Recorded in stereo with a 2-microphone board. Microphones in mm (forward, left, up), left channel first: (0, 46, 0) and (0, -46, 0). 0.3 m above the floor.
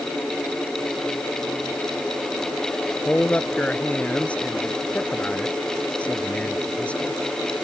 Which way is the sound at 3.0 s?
15° left (ahead or behind).